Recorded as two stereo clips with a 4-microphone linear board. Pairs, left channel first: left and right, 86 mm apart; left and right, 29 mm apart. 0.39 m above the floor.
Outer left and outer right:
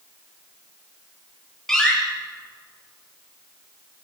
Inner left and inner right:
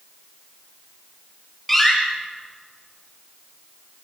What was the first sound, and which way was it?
A door slam, 5° left (ahead or behind).